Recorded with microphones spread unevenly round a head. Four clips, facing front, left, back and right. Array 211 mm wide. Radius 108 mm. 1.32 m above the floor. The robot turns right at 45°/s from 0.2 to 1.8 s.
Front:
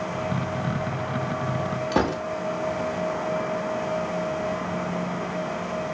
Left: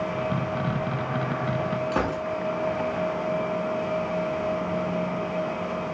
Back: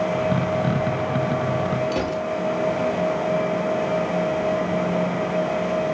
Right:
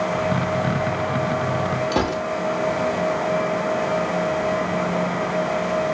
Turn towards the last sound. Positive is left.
turn(degrees=-25)